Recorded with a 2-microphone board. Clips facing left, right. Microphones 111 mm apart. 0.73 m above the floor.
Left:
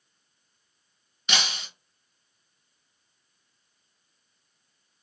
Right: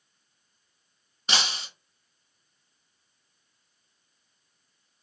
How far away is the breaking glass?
About 1.6 m.